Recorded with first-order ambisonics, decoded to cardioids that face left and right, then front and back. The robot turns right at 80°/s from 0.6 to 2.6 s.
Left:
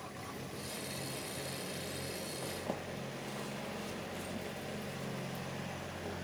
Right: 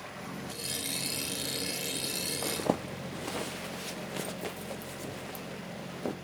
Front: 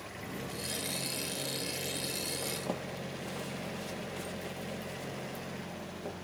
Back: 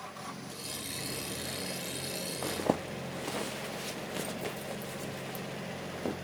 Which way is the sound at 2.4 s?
140° right.